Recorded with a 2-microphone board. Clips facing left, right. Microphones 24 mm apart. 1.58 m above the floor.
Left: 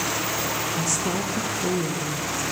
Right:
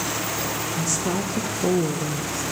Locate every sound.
0.8 s a woman speaking: 5° left (ahead or behind), 0.6 m; by 2.4 s 75° right (ahead or behind), 0.7 m